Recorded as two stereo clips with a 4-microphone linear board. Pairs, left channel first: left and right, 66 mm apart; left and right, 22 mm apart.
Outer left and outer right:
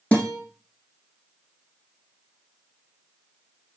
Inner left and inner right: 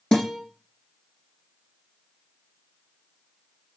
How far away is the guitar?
About 3.5 m.